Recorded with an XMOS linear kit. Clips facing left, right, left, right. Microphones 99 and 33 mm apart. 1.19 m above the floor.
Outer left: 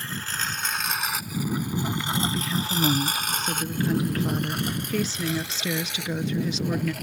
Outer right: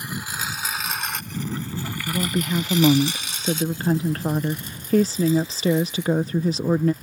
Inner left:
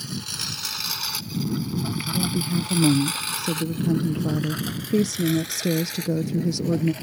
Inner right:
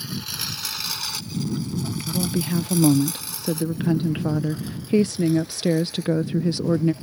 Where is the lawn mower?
15° right (ahead or behind); by 7.0 s 85° left.